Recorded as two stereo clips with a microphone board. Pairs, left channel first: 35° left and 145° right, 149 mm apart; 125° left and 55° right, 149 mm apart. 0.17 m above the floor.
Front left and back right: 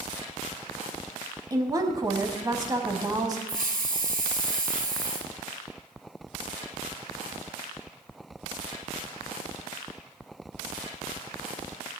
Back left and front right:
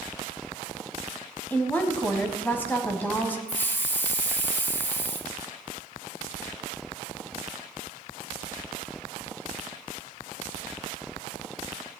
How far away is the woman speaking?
About 1.1 m.